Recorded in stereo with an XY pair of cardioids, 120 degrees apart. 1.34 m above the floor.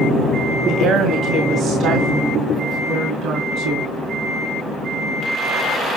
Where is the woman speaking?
65° right, 2.0 m; by 3.9 s 70° right, 3.5 m.